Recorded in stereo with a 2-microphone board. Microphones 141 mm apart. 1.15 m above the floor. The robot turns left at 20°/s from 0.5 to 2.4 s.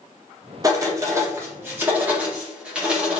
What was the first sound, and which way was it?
Writing, 25° right (ahead or behind).